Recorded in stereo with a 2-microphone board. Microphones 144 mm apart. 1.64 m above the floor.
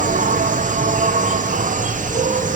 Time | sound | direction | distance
0.0 | an insect | 60° right (ahead or behind) | 0.8 m